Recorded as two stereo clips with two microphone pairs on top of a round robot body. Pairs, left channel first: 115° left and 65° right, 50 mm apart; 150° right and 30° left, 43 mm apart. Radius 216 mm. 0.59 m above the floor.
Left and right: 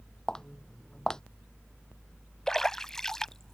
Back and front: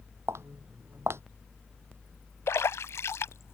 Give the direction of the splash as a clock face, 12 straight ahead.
5 o'clock.